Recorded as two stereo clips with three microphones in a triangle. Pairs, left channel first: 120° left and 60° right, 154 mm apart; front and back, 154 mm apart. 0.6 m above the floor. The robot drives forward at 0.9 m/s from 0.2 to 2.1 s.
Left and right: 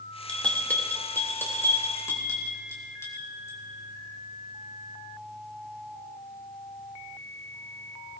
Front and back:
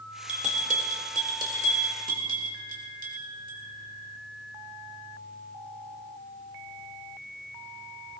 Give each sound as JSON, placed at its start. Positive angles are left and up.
{"t": 0.3, "sound": "a bell", "azimuth_deg": -160, "distance_m": 2.0}